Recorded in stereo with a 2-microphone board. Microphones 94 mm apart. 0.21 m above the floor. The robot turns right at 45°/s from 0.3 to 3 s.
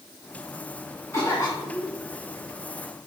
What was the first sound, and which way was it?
A cough, 40° left.